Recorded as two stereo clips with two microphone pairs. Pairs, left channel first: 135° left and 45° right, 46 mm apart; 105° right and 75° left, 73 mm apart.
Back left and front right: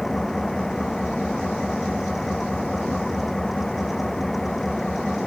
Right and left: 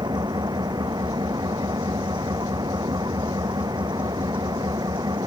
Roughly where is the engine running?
Ahead left.